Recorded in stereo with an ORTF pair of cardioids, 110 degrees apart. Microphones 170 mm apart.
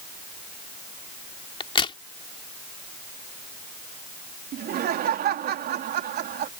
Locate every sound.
1.6 s a crack: 30° left
4.5 s laughter: 60° right